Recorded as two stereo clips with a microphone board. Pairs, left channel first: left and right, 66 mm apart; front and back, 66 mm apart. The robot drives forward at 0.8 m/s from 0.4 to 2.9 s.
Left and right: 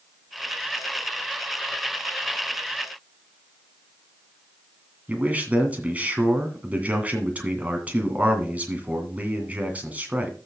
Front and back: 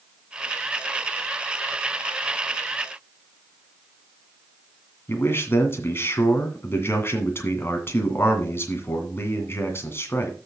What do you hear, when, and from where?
5.1 s a man speaking: 30° right, 2 m